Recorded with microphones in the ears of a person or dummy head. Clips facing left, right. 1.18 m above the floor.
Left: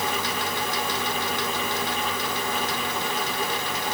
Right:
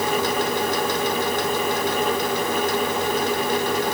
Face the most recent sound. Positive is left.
No sound to turn to.